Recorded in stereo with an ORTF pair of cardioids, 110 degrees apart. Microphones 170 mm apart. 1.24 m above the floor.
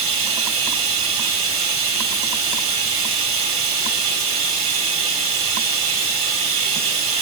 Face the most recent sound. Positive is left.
turn(degrees=-40)